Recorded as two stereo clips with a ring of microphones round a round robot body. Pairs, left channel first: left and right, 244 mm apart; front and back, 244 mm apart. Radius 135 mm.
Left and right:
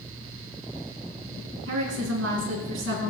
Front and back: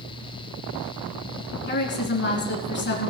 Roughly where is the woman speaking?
Ahead right.